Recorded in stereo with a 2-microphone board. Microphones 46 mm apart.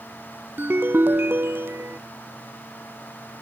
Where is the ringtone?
50° right (ahead or behind).